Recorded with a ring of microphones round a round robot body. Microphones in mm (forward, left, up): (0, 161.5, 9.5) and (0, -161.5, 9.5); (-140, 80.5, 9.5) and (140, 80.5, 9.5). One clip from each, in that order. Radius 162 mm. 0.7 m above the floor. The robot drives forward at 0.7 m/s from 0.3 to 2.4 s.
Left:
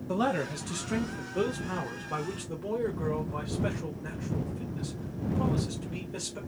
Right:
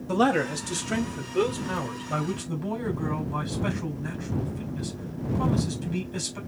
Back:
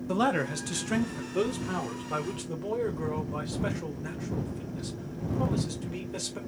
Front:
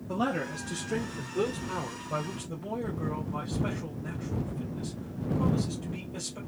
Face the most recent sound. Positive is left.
turn(degrees=-175)